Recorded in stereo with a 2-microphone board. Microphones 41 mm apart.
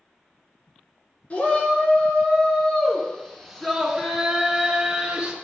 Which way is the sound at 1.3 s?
30° left (ahead or behind).